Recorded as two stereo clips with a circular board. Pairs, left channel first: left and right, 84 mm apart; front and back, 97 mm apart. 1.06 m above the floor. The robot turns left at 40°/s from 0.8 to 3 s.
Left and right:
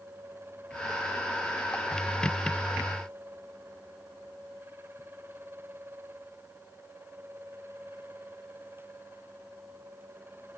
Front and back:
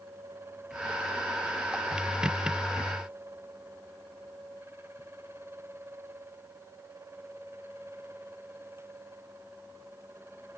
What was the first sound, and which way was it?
Only background noise.